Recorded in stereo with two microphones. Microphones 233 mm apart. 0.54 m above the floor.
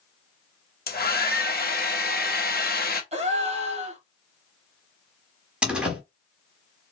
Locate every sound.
0.9 s a hair dryer: 40° left (ahead or behind), 0.8 m
3.1 s a gasp: 30° right (ahead or behind), 1.1 m
5.6 s a door slam: 5° right (ahead or behind), 1.2 m